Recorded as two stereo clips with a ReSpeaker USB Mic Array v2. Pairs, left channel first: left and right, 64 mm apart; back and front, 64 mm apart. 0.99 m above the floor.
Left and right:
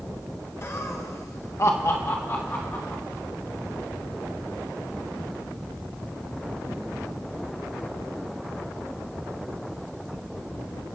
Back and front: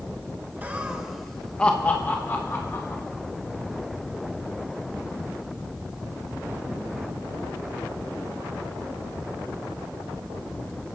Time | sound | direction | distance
0.6 | laughter | 55° left | 1.1 m